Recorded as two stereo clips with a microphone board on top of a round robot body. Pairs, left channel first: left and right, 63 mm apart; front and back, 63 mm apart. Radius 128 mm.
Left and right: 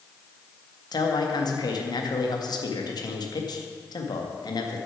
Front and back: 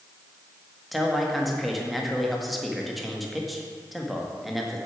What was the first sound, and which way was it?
A man speaking, 90° left.